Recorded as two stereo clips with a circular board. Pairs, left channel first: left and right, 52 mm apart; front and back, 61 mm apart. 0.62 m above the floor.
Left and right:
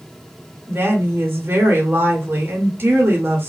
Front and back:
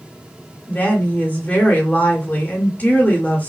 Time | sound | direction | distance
0.7 | a woman speaking | 55° right | 1.6 m